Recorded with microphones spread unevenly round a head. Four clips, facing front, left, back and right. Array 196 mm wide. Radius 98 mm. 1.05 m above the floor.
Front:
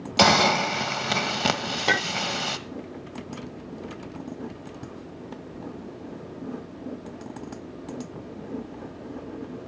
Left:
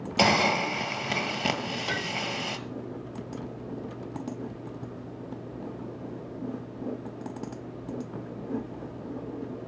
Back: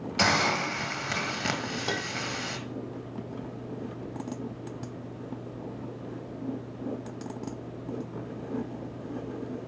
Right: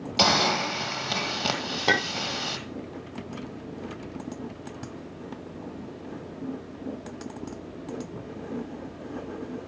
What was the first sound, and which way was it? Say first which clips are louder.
A hiss: even, front 7 dB; 15° left.